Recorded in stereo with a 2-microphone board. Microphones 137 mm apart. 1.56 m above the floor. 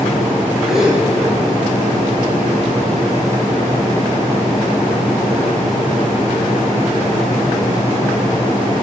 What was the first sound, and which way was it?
A gasp, 5° right (ahead or behind).